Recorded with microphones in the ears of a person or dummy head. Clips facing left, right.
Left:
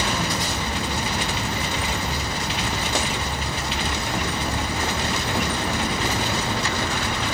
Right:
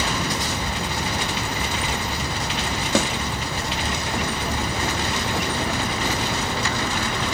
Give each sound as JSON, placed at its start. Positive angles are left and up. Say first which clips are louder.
{"t": 3.0, "sound": "a snare drum", "louder": "right 7 dB", "side_deg": -85, "distance_m": 2.5}